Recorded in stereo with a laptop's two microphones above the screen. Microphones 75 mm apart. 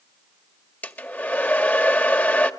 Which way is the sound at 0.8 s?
25° left (ahead or behind).